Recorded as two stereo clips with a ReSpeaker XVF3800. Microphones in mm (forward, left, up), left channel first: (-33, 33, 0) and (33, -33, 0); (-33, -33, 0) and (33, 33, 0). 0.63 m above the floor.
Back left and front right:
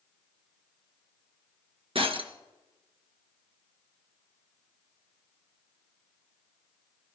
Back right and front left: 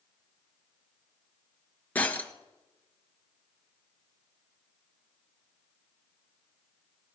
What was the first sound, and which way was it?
Breaking glass, 60° right.